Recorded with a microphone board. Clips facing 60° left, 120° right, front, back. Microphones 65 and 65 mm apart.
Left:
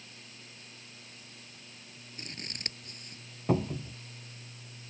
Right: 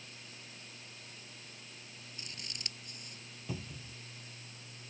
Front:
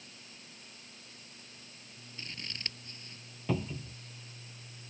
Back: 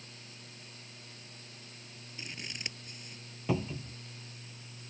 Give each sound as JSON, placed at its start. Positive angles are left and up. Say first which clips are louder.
{"t": 2.2, "sound": "scissors", "louder": "left 6 dB, back 1 dB", "azimuth_deg": 105}
{"t": 3.5, "sound": "a cupboard door", "louder": "left 15 dB, back 1 dB", "azimuth_deg": 100}